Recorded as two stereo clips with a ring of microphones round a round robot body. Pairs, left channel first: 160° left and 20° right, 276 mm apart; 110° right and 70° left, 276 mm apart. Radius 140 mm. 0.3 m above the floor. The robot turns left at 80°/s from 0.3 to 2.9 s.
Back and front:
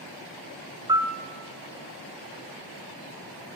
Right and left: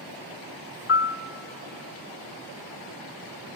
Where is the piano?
90° right, 0.7 m; by 1.2 s 115° right, 0.7 m.